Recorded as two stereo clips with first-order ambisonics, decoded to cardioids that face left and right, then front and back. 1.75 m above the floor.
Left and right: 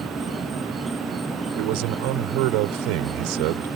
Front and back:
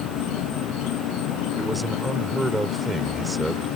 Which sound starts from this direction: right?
A man speaking, at 1.6 s.